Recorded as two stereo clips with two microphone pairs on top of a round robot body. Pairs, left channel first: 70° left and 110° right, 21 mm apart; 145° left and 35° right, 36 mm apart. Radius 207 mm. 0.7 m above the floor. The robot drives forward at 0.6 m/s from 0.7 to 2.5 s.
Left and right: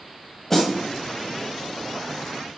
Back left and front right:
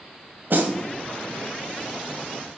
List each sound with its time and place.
0.5 s a snare drum: 5° right, 1.4 m